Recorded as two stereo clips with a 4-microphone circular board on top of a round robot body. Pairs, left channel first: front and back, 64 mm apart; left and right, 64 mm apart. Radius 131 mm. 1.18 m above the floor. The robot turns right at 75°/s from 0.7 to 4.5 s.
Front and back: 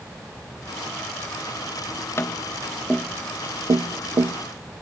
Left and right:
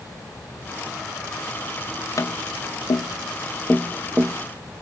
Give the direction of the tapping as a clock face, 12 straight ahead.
10 o'clock.